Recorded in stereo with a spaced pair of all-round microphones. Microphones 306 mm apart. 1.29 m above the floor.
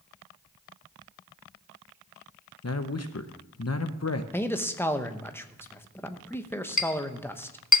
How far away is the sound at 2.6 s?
About 0.8 m.